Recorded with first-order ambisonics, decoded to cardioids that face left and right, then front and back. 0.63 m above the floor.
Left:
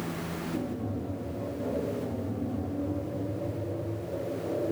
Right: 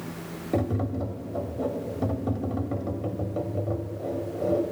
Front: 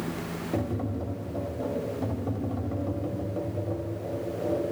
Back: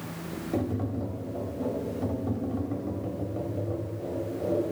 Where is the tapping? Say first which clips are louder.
Right 11 dB, back 1 dB; 85° right, 1.1 m.